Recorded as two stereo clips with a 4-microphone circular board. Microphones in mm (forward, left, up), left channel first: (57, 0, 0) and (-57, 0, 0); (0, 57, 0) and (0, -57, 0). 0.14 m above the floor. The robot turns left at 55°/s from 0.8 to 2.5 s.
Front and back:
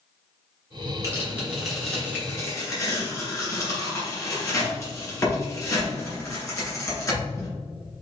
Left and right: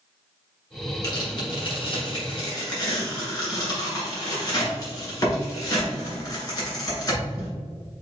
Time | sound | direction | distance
1.0 | tearing paper | 130° left | 1.8 m